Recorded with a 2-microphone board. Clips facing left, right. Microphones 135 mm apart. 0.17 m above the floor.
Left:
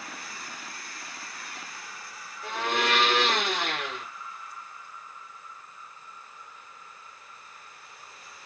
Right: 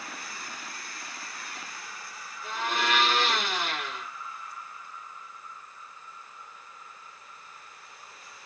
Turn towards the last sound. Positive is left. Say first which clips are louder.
# left 2 dB
turn(degrees=75)  # may be behind; listen again after turning